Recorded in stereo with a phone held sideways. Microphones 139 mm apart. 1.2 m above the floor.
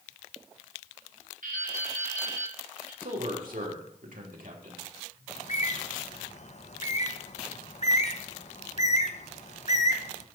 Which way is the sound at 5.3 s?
55° left (ahead or behind).